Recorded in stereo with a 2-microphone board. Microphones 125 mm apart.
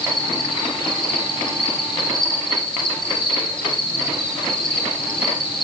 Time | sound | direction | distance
0.0 | an insect | 40° left (ahead or behind) | 8.5 m